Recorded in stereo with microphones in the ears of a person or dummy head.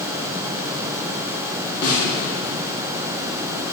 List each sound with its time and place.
1.8 s a snare drum: 60° left (ahead or behind), 3 m